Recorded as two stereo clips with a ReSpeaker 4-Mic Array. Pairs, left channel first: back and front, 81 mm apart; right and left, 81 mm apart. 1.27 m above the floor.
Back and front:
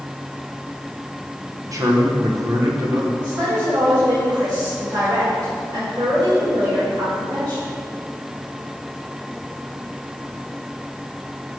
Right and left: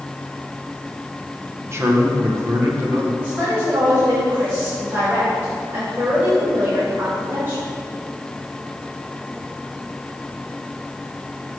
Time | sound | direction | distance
1.7 | a man speaking | 40° left | 1.0 m
3.2 | a woman speaking | 30° left | 2 m